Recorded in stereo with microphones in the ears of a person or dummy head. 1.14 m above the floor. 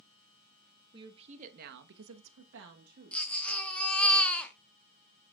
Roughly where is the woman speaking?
Right.